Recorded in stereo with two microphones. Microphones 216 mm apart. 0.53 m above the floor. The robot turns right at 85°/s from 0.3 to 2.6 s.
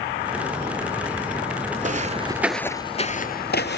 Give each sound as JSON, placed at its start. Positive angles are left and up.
{"t": 1.8, "sound": "footsteps", "side_deg": -35, "distance_m": 0.6}